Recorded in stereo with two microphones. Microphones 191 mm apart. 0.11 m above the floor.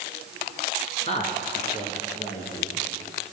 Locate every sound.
1.1 s a woman speaking: 35° left (ahead or behind), 2.0 m; by 2.8 s 30° left (ahead or behind), 3 m